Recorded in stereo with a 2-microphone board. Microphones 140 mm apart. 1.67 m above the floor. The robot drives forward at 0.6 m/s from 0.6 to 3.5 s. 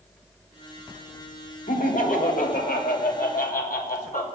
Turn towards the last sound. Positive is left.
turn(degrees=80)